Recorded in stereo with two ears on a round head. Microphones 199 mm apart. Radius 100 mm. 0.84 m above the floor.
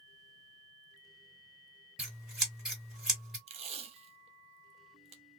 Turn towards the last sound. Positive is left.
turn(degrees=-30)  # may be behind; listen again after turning